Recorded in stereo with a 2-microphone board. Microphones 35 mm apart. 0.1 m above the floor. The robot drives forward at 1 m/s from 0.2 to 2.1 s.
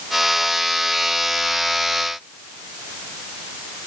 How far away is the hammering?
I don't hear hammering.